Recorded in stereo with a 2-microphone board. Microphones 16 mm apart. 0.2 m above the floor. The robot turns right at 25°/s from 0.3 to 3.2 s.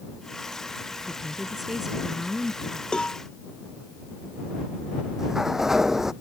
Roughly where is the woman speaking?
Ahead right.